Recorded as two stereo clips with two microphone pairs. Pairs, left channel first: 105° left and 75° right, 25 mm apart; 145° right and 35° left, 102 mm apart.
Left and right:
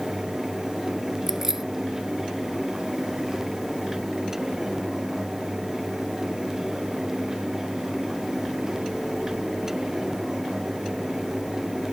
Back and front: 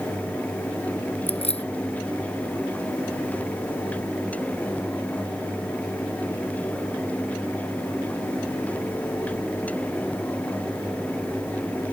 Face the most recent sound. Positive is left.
turn(degrees=-145)